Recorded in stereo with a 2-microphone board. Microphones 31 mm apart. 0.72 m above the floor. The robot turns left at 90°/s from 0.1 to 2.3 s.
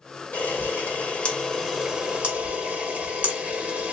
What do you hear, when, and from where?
0.3 s a camera shutter: 50° left (ahead or behind), 1.3 m; by 3.9 s 50° right (ahead or behind), 1.3 m